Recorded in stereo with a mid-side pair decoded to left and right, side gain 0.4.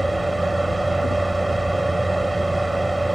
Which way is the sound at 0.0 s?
10° right.